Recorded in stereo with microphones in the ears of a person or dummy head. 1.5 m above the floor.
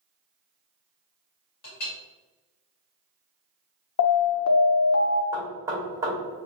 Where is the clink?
50° left (ahead or behind), 2 m.